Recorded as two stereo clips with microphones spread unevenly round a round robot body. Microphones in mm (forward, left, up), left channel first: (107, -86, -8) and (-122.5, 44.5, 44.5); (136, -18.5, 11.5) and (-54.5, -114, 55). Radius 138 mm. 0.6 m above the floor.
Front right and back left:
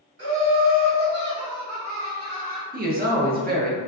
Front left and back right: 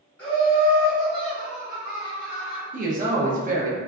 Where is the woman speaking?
170° right, 0.6 m.